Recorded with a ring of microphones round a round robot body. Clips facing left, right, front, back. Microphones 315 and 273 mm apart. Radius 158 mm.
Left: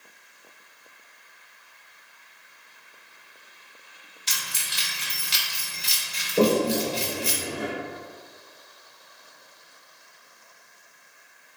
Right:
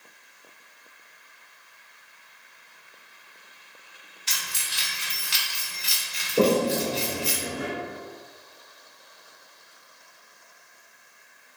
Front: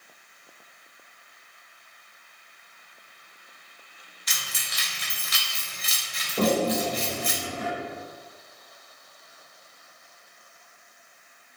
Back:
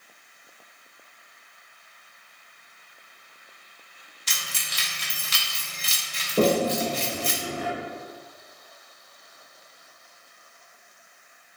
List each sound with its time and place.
4.3 s keys jangling: 125° left, 0.7 m
6.4 s a toilet flushing: 175° right, 0.5 m